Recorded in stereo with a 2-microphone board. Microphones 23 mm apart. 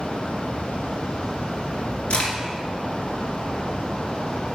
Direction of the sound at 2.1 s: 60° left (ahead or behind).